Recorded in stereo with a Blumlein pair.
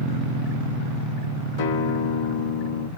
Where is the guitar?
50° left, 0.9 m.